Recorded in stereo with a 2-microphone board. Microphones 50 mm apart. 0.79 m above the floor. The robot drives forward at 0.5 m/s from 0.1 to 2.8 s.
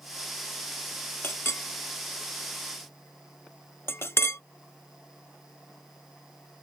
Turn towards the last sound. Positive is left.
turn(degrees=55)  # may be behind; listen again after turning